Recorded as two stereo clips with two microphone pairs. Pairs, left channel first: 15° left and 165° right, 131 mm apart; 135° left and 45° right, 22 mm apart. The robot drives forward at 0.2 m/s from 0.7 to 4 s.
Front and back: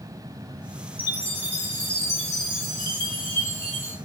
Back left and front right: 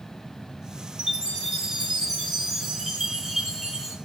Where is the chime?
90° right, 1.1 m; by 4.0 s 120° right, 1.3 m.